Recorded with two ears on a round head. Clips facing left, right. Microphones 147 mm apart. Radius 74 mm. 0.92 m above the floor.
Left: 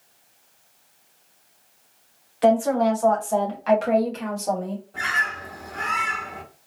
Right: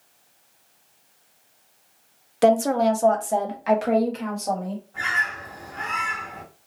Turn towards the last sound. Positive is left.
turn(degrees=40)  # may be behind; listen again after turning